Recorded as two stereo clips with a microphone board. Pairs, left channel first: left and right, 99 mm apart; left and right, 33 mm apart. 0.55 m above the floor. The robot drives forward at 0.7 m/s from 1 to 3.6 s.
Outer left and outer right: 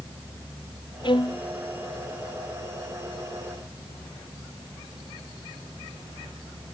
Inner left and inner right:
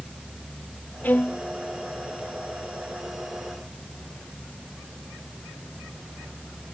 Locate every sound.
1.0 s a violin: 55° left (ahead or behind); by 1.4 s 60° left (ahead or behind)